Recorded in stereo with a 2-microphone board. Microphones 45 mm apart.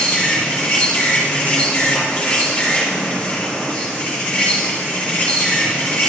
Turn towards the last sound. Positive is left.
turn(degrees=35)  # may be behind; listen again after turning